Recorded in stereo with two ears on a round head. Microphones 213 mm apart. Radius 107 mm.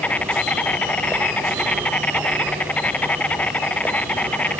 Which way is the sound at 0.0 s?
5° left (ahead or behind).